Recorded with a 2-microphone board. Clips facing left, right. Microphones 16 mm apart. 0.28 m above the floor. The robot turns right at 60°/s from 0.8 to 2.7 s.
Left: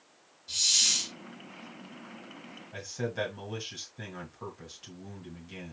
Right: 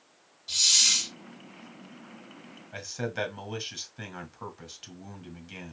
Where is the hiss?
25° right (ahead or behind), 1.7 m; by 1.1 s 15° right (ahead or behind), 1.7 m.